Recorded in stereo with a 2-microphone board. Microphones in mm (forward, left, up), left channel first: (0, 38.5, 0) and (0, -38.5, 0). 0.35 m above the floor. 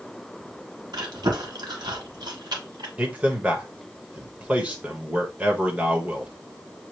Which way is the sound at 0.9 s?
70° right (ahead or behind).